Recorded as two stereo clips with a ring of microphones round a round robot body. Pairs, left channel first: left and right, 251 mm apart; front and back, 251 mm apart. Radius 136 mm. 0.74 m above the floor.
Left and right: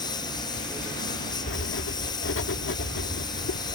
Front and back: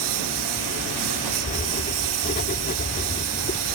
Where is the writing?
55° left.